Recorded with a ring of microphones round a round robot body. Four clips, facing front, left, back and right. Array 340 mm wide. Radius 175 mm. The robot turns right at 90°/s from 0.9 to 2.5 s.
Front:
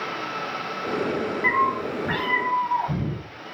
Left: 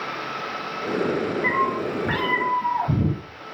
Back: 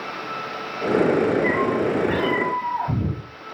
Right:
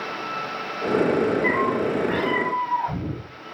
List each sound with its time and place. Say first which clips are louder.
1.4 s a cat meowing: right 1 dB, back 2 dB; 20° left, 10 m; by 3.2 s 120° left, 10 m